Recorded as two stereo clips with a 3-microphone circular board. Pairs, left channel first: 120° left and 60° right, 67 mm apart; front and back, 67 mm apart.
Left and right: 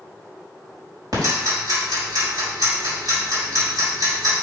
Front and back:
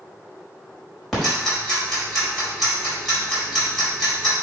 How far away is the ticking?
About 4.5 m.